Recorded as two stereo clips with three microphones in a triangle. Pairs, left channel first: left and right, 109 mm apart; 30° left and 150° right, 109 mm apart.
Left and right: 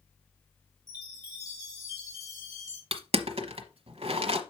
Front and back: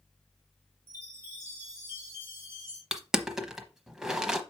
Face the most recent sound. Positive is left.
turn(degrees=-65)